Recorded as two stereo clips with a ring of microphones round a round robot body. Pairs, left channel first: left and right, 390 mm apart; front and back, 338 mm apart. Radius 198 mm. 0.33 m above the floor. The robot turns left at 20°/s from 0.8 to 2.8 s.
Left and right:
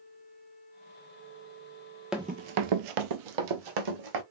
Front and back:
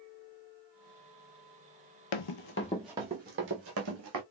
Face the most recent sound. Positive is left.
turn(degrees=-125)